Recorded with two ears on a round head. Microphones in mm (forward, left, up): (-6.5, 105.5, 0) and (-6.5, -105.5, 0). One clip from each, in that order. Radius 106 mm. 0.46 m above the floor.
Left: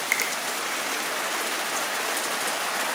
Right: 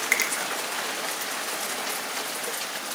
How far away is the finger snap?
About 0.8 m.